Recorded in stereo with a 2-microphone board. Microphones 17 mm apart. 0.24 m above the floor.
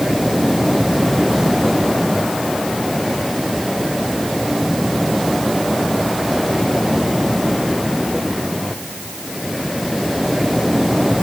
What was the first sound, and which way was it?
Only background noise.